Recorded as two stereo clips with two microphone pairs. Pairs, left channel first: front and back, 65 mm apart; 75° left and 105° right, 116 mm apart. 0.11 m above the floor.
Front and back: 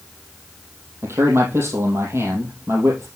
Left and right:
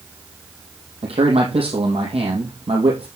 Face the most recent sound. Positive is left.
turn(degrees=-135)